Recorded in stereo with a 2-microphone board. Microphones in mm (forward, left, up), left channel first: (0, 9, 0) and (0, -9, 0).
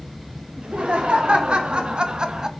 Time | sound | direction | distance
0.6 | laughter | 70° right (ahead or behind) | 2 m